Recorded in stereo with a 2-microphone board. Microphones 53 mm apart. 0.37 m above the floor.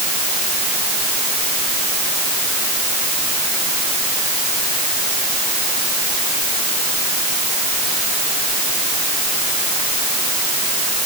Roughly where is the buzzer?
I don't hear a buzzer.